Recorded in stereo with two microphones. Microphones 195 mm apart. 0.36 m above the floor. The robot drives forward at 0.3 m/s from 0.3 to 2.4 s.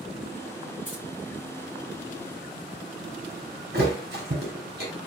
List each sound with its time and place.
0.8 s keys jangling: 80° left, 3 m
3.7 s a thud: 60° right (ahead or behind), 2.5 m